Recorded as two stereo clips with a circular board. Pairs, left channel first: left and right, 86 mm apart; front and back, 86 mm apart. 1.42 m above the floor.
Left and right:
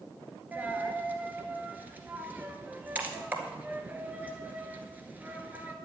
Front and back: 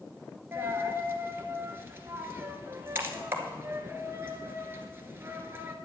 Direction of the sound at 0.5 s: 145° right.